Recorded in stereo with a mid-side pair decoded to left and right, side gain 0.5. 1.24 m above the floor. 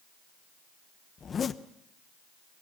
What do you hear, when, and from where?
1.2 s a zipper: 40° left, 1.0 m